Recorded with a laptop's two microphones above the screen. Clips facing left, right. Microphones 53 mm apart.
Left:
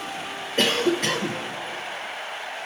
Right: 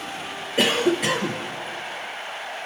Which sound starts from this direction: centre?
A cough, at 0.6 s.